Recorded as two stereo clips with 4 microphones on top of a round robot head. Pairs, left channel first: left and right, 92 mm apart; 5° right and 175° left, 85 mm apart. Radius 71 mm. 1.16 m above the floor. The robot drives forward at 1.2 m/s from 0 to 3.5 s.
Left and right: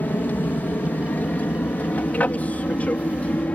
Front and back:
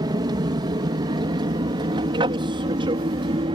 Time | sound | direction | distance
0.0 | an aircraft | 155° left | ?